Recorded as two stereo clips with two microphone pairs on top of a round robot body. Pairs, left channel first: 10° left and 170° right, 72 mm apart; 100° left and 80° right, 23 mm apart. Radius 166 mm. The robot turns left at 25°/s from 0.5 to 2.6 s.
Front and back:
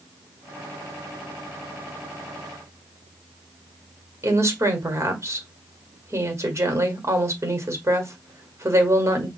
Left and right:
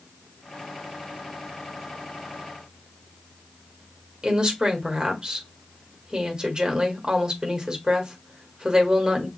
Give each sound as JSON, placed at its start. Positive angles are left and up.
{"t": 4.2, "sound": "a woman speaking", "azimuth_deg": -130, "distance_m": 1.7}